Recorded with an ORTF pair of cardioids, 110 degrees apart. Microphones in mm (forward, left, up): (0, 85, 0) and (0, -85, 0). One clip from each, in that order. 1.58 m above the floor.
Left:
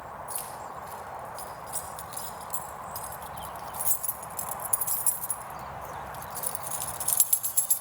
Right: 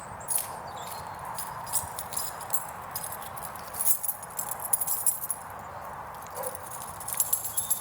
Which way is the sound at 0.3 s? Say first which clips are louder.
Right 1 dB; 45° right.